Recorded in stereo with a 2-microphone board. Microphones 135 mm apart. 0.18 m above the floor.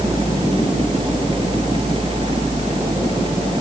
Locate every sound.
Only background noise.